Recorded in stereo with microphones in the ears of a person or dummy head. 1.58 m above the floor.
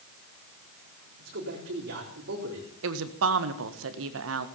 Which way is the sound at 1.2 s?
60° right (ahead or behind).